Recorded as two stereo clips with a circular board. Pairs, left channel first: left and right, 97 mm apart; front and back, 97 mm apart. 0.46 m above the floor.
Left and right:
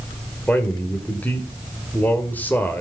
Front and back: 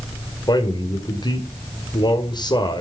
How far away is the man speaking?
About 2.0 m.